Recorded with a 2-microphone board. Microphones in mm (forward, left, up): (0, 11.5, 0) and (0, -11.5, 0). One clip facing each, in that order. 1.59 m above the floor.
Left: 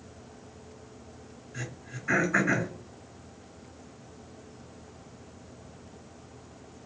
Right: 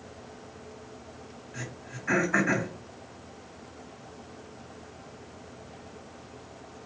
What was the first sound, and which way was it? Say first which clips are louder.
Throat clearing: even; 80° right.